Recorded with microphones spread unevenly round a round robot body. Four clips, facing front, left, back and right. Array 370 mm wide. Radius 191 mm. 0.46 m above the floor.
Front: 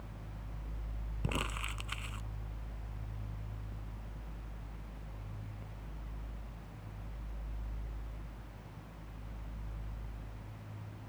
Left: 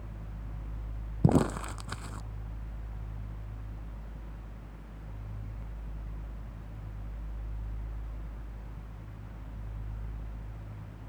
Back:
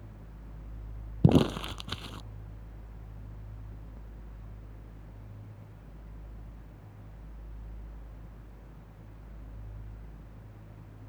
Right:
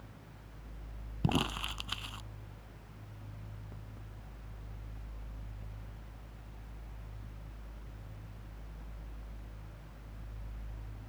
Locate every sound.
1.2 s crumpling: 155° left